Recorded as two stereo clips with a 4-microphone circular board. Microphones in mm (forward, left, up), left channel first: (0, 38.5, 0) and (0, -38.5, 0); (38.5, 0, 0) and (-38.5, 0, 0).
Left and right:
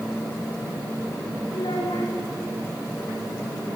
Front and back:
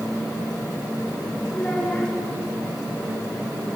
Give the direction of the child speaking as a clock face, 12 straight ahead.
9 o'clock.